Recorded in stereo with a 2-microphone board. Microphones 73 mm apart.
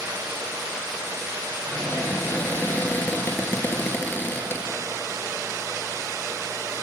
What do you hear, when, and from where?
1.7 s a cupboard door: 25° left (ahead or behind), 3 m